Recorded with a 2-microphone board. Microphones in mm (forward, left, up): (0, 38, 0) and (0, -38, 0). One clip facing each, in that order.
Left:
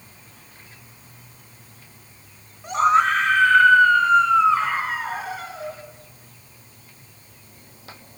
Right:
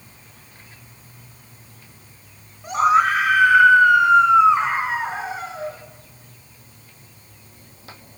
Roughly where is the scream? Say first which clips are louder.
Right 1 dB; centre.